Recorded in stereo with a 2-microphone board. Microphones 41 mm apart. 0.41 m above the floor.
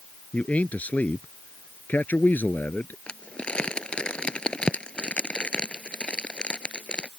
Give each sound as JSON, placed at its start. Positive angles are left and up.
{"t": 0.3, "sound": "a man speaking", "side_deg": 35}
{"t": 3.1, "sound": "crumpling", "side_deg": 25}